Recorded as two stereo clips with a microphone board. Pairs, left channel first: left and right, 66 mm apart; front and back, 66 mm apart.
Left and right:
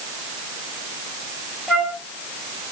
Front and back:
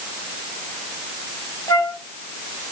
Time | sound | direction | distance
1.7 | a flute | 10° right | 1.7 m